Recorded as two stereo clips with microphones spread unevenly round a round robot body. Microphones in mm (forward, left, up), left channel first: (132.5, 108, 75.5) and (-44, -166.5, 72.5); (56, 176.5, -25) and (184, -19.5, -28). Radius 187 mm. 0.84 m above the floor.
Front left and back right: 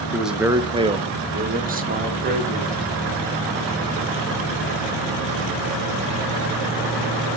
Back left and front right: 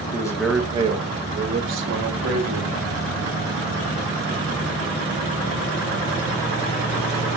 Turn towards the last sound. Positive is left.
turn(degrees=-60)